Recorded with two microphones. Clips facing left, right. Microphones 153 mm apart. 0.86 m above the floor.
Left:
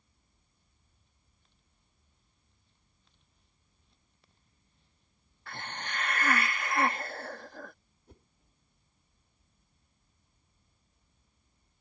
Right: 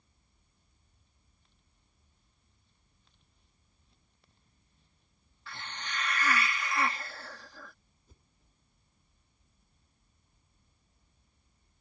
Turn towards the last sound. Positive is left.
turn(degrees=70)  # may be behind; listen again after turning